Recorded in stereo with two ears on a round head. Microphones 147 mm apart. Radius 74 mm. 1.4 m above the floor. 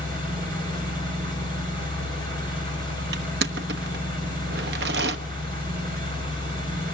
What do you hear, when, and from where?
0.0 s an engine running: 55° right (ahead or behind), 8.5 m
3.1 s crushing: 70° right (ahead or behind), 1.0 m